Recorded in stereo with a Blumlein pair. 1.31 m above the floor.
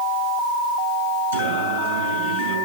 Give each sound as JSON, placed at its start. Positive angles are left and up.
{"t": 1.3, "sound": "singing", "azimuth_deg": -70, "distance_m": 4.5}